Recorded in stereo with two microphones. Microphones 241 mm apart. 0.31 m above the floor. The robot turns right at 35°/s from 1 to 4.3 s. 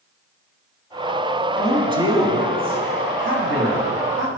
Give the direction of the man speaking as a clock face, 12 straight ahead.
6 o'clock.